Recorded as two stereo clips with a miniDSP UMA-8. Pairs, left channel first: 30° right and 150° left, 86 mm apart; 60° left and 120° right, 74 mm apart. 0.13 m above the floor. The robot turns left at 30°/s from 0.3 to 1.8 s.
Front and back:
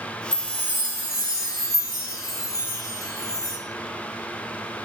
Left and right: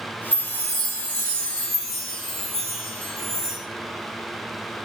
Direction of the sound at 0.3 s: 20° left.